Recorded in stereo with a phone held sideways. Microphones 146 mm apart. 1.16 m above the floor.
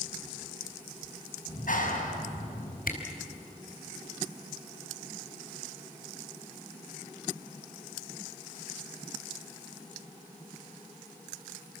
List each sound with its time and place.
1.5 s a clap: 70° left (ahead or behind), 6.5 m
2.9 s a camera shutter: 75° left (ahead or behind), 4 m